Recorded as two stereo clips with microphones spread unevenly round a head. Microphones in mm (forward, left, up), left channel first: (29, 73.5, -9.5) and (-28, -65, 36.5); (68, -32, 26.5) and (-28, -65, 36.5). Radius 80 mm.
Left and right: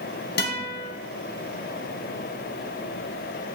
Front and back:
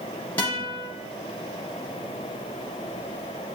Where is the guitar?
100° left, 0.9 m.